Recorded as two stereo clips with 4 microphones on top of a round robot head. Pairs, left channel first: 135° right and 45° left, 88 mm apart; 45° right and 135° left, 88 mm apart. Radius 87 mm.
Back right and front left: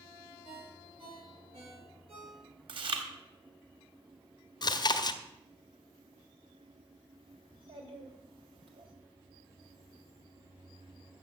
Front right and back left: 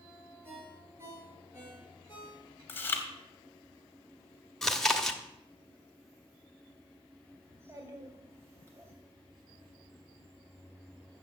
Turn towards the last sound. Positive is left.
turn(degrees=70)